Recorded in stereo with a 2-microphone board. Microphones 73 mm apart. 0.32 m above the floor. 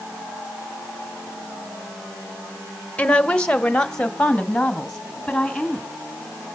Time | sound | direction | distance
3.0 | a woman speaking | 20° left (ahead or behind) | 1.0 m